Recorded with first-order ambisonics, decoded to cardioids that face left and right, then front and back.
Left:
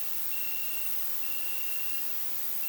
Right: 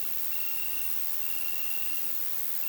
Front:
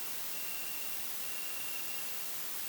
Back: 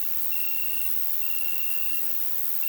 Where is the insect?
170° right, 1.7 m.